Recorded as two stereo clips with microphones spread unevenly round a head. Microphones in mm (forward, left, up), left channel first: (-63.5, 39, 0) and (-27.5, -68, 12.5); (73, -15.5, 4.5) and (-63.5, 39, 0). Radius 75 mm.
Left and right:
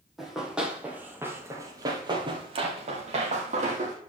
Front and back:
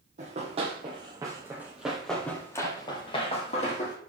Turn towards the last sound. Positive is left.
turn(degrees=-60)